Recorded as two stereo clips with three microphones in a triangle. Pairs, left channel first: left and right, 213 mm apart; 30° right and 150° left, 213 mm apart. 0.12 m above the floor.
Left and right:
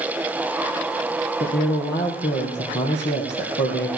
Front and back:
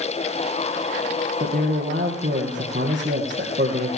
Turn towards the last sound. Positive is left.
turn(degrees=105)